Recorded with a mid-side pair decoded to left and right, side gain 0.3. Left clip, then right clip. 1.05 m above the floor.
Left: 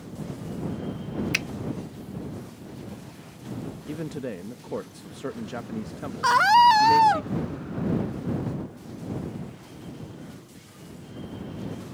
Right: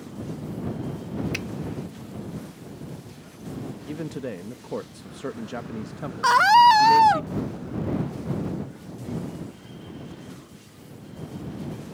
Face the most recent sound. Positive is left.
turn(degrees=-15)